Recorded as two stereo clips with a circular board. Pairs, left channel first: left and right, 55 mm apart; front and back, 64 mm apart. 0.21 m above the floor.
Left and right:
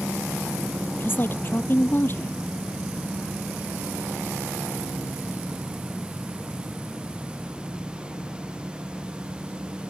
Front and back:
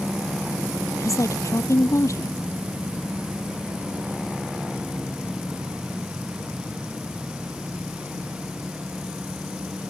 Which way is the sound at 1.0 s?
35° left.